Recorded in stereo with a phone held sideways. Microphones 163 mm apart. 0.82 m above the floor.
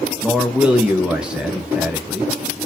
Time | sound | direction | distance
0.2 | a man speaking | 5° right (ahead or behind) | 0.6 m